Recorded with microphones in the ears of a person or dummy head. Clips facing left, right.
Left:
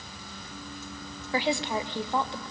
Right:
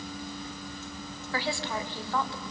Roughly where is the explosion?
I don't hear an explosion.